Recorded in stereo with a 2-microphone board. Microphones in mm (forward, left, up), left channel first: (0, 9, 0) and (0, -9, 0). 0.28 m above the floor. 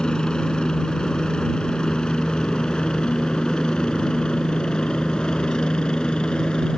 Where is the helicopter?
55° left (ahead or behind); by 6.8 s 60° left (ahead or behind).